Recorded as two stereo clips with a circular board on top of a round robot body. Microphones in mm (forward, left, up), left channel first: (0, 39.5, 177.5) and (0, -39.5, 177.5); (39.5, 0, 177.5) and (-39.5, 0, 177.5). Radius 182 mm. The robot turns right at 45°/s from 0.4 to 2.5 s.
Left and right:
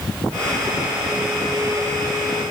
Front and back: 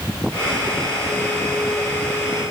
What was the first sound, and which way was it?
Only background noise.